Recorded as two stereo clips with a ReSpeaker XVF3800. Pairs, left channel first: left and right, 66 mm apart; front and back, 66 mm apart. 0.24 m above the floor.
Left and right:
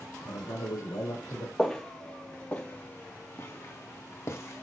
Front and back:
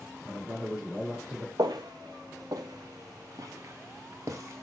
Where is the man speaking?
105° left, 5 m.